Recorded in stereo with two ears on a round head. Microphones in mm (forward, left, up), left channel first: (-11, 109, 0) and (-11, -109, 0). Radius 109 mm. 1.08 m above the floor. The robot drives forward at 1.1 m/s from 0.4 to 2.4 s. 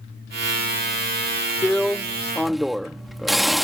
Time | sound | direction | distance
1.6 | a drill | centre (ahead or behind) | ?